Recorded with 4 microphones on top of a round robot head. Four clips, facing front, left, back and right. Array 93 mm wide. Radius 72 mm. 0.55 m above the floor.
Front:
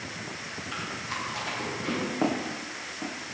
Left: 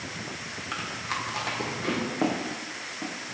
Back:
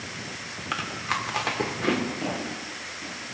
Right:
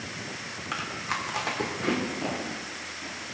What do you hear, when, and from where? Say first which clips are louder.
0.7 s chewing: right 1 dB, back 7 dB; 170° right, 2 m
2.2 s footsteps: left 4 dB, front 3 dB; 45° left, 5 m